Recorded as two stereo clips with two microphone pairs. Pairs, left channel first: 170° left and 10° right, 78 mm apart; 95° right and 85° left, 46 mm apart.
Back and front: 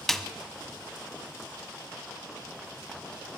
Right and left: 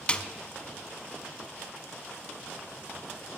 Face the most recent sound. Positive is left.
turn(degrees=-120)